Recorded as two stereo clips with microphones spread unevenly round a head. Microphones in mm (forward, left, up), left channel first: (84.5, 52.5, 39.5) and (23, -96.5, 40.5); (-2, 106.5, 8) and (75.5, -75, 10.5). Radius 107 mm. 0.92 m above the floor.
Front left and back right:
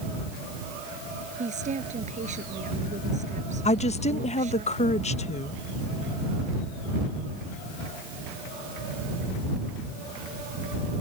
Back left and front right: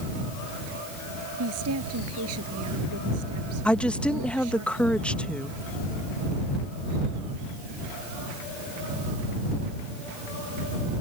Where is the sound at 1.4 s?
70° right.